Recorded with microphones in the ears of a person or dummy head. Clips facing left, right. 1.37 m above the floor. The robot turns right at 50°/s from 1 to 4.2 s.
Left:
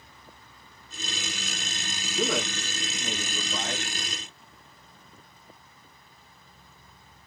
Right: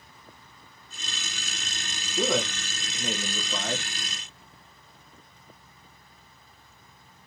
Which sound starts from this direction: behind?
A man speaking, at 2.2 s.